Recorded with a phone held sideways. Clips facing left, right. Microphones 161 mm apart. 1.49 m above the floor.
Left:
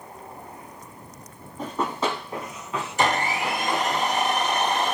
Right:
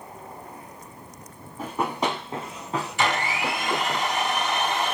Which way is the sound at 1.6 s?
5° right (ahead or behind).